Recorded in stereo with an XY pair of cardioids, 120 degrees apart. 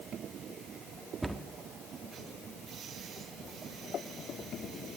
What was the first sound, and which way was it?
A cupboard door, 15° right.